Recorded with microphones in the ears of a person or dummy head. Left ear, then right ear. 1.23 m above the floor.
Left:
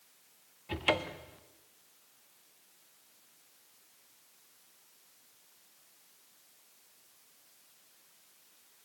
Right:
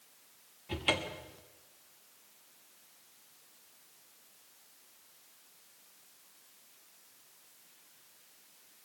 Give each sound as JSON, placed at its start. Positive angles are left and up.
{"t": 0.7, "sound": "a cupboard door", "side_deg": 20, "distance_m": 0.6}